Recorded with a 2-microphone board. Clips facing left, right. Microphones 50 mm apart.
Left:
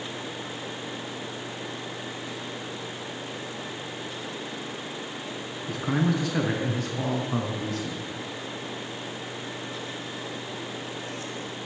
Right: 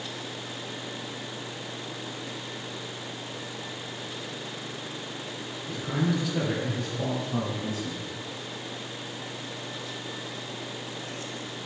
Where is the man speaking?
65° left (ahead or behind), 2.5 m; by 8.1 s 60° left (ahead or behind), 3 m.